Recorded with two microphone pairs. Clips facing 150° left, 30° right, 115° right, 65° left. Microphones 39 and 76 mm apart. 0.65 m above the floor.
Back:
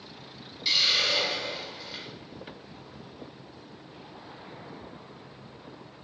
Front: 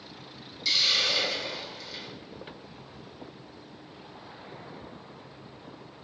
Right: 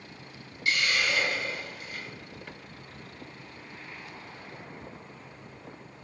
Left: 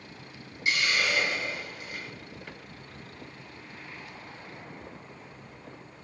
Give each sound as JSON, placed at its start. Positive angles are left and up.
{"t": 0.7, "sound": "a hiss", "azimuth_deg": 105, "distance_m": 0.9}